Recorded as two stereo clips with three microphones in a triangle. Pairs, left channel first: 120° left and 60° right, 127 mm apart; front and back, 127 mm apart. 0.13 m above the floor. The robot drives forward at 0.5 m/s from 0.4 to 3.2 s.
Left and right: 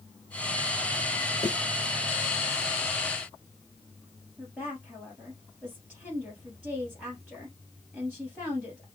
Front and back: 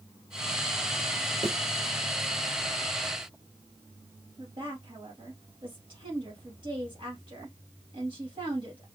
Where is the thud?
165° left, 1.1 m.